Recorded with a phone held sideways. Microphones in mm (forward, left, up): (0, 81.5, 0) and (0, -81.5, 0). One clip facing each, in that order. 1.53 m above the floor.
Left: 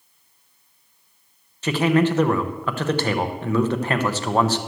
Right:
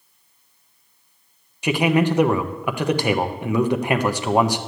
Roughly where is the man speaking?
Centre.